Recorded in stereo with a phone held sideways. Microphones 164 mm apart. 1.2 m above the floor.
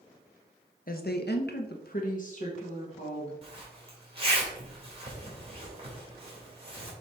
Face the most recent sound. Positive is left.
turn(degrees=-35)  # may be behind; listen again after turning